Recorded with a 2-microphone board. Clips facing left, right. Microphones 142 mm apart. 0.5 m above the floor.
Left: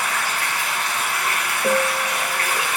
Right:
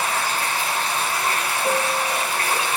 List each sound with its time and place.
0.0 s running water: 30° right (ahead or behind), 1.1 m
1.6 s a piano: 40° left (ahead or behind), 1.8 m